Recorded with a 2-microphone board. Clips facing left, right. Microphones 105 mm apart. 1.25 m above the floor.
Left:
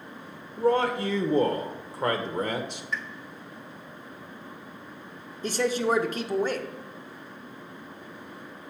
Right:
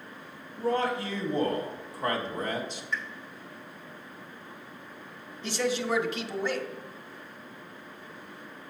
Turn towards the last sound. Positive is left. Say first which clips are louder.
# left 4 dB
turn(degrees=40)  # may be behind; listen again after turning